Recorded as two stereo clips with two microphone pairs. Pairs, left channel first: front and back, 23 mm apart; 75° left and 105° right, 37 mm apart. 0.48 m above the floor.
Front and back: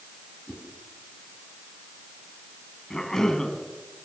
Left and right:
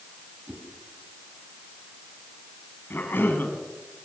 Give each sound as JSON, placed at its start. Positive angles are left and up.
{"t": 0.5, "sound": "a whoosh", "azimuth_deg": -40, "distance_m": 4.5}
{"t": 2.9, "sound": "a cough", "azimuth_deg": 65, "distance_m": 4.0}